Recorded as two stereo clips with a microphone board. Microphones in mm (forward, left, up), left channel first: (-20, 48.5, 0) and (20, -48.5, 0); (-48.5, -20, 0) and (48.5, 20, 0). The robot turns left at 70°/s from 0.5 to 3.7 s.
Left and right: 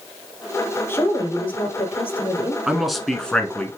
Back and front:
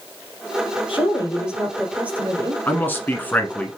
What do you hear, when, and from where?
0.9 s a woman speaking: straight behind, 2.5 m; by 2.6 s 65° left, 2.5 m
2.7 s a man speaking: 140° right, 1.3 m; by 3.8 s 150° left, 1.3 m